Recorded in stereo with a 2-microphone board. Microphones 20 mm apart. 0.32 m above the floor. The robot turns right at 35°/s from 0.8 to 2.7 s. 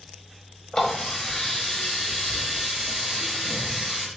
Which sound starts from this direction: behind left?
A running tap, at 0.7 s.